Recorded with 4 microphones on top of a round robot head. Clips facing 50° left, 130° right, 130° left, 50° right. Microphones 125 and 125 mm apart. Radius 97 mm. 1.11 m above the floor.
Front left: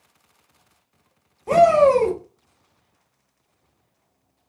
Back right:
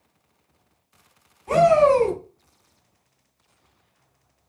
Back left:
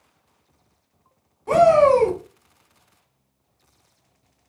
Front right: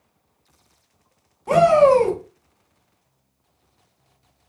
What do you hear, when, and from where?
1.5 s a shout: 20° left, 1.3 m